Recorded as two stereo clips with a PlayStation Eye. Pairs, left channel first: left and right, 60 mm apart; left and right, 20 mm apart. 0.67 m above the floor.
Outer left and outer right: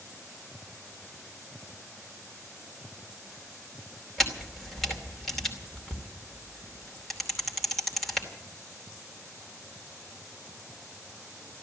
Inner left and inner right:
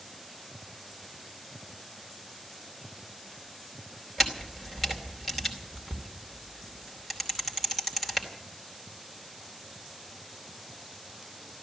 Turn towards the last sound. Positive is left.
turn(degrees=5)  # may be behind; listen again after turning